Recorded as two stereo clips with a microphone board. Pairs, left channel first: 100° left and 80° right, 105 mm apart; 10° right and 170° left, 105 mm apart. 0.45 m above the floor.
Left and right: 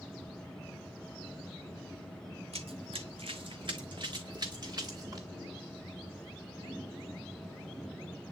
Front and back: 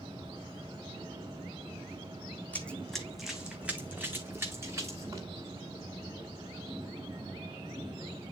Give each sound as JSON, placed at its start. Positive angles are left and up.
{"t": 2.5, "sound": "running footsteps", "azimuth_deg": -85, "distance_m": 1.2}